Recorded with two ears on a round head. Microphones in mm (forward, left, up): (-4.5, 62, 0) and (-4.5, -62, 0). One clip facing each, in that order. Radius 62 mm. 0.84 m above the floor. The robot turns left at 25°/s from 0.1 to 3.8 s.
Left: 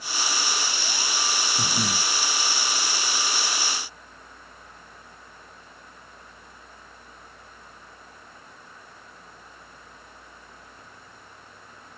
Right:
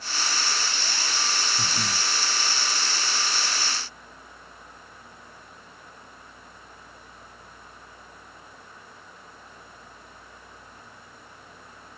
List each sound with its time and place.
1.6 s breathing: 15° left (ahead or behind); by 2.1 s 30° left (ahead or behind)